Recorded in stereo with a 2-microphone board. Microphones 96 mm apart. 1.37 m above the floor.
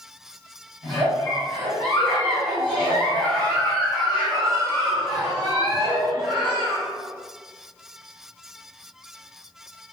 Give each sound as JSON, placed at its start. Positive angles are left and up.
{"t": 0.8, "sound": "a giggle", "side_deg": 10, "distance_m": 1.9}